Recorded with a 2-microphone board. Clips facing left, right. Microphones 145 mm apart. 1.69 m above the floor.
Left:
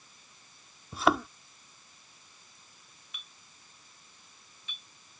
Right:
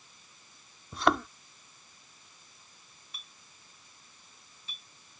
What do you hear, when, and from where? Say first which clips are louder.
0.9 s a thud: left 1 dB; centre (ahead or behind)
3.1 s a clink: even; 35° right (ahead or behind)